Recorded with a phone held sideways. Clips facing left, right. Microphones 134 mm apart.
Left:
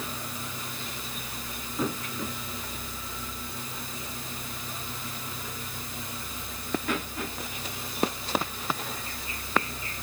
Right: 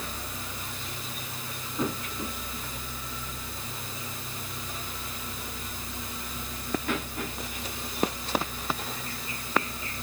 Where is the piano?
I don't hear a piano.